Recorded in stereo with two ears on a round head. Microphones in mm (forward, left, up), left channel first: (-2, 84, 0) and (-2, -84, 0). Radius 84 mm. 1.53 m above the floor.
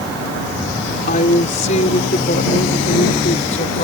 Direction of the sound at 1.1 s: 40° left (ahead or behind).